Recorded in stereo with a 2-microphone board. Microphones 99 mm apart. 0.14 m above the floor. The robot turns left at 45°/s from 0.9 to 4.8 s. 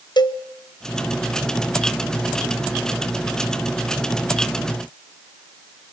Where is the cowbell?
45° left (ahead or behind), 1.1 m.